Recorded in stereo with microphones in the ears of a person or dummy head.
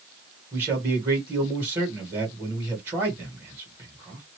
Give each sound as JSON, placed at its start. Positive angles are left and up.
{"t": 0.5, "sound": "a man speaking", "side_deg": -15, "distance_m": 1.6}